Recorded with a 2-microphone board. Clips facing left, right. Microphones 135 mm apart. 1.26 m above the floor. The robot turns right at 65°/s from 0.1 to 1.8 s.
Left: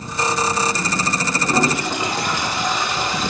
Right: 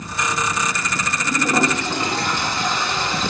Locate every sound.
1.2 s a toilet flushing: 25° right, 1.3 m; by 3.3 s 15° left, 1.3 m